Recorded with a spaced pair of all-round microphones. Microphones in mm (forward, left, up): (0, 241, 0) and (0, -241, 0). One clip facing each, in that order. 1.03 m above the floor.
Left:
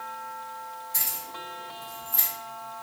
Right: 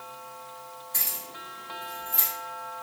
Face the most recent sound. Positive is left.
turn(degrees=-35)  # may be behind; listen again after turning